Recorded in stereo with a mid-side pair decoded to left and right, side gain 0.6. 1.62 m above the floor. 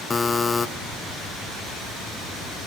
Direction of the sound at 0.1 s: 20° left.